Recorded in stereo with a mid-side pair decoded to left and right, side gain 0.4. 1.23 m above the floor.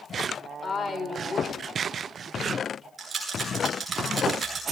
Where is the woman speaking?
35° left, 3.5 m.